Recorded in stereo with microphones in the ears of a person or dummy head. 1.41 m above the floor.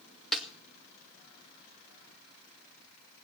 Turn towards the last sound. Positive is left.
turn(degrees=5)  # may be behind; listen again after turning